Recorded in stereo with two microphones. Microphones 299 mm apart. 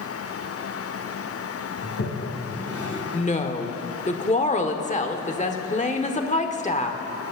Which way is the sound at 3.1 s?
25° left (ahead or behind).